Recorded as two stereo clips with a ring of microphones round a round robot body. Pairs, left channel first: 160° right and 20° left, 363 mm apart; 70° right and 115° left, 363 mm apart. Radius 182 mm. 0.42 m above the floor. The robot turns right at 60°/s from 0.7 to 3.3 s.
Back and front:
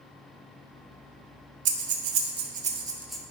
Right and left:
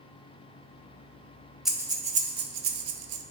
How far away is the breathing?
About 0.8 m.